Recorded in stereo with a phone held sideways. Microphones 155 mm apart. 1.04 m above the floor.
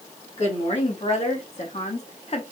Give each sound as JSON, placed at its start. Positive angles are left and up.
{"t": 0.4, "sound": "a woman speaking", "side_deg": 45, "distance_m": 1.5}